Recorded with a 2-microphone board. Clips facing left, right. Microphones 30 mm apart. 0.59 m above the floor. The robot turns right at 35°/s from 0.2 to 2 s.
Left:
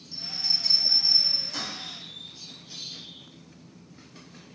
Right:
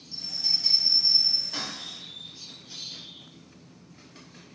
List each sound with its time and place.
0.1 s a bell: 5° right (ahead or behind), 1.6 m; by 1.7 s 35° right (ahead or behind), 1.6 m